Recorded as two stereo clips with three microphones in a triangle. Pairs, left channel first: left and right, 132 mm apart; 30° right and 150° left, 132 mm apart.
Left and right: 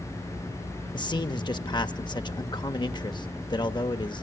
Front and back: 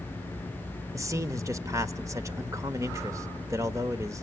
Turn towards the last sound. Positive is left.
turn(degrees=105)